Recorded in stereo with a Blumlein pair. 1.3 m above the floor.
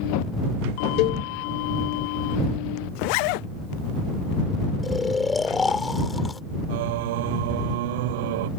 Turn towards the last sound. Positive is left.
turn(degrees=-50)